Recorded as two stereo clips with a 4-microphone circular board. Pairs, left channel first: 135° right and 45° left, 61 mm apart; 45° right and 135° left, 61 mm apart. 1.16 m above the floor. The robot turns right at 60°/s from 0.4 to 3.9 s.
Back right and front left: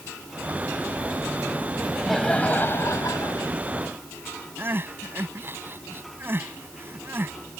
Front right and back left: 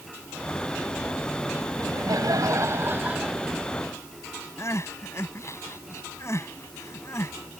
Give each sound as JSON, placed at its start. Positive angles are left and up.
{"t": 1.8, "sound": "laughter", "azimuth_deg": 120}
{"t": 4.6, "sound": "crying", "azimuth_deg": -5}